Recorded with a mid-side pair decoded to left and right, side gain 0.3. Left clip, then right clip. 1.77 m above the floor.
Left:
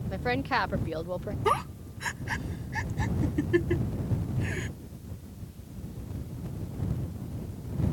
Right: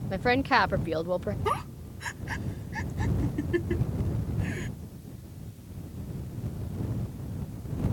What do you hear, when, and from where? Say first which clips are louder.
0.1 s a woman speaking: right 5 dB; 45° right
1.4 s a giggle: left 7 dB; 35° left